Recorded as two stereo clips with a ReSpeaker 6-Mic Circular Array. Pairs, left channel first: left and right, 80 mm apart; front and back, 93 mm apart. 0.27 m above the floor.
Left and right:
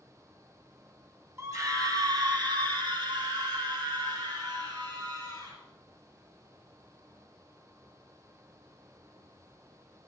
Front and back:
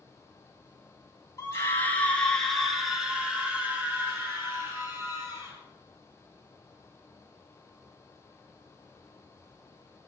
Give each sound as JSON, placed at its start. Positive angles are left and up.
{"t": 1.4, "sound": "a scream", "azimuth_deg": -50, "distance_m": 2.5}